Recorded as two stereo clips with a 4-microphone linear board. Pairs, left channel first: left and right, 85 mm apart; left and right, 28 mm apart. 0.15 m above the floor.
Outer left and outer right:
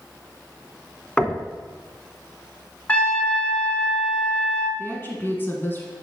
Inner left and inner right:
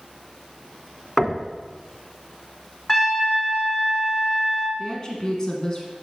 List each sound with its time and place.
1.2 s knocking: 10° left (ahead or behind), 0.7 m
2.9 s a trumpet: 15° left (ahead or behind), 1.2 m
4.8 s a woman speaking: 30° left (ahead or behind), 1.3 m